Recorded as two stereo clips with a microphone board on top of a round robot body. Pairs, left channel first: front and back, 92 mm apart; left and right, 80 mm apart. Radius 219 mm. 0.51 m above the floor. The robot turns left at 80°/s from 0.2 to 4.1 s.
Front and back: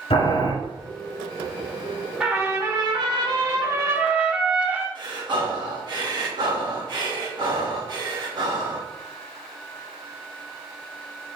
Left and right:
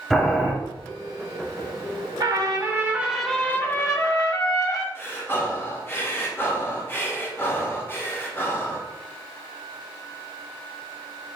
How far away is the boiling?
About 3 m.